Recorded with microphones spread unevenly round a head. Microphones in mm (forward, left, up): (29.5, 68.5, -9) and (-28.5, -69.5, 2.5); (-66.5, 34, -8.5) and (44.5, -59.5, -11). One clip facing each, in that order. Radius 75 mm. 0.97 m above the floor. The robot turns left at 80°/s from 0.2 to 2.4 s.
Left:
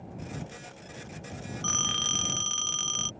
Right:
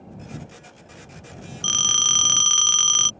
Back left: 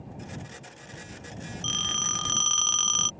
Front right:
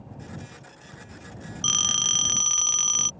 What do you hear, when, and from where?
1.6 s a phone ringing: 55° right; by 3.1 s 115° right